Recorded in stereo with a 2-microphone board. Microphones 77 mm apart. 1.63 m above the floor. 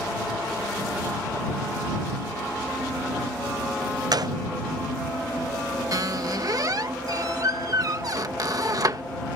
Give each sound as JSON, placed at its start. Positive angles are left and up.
{"t": 4.1, "sound": "a gunshot", "side_deg": -60}
{"t": 5.9, "sound": "a squeak", "side_deg": -50}